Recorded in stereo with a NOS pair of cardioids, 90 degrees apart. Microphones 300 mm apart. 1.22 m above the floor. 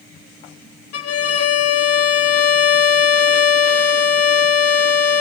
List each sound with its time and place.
0.9 s a violin: 55° left, 1.3 m